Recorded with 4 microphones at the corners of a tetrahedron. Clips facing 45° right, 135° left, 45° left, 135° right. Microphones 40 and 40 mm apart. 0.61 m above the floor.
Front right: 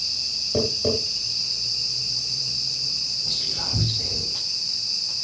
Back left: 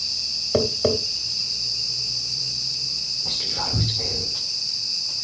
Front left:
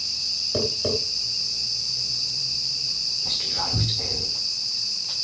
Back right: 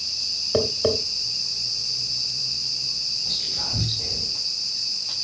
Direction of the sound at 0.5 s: 170° left.